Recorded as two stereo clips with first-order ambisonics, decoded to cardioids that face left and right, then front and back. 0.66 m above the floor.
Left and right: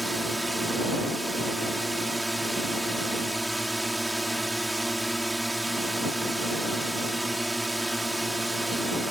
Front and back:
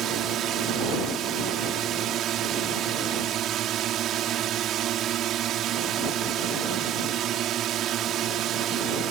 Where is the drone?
175° right.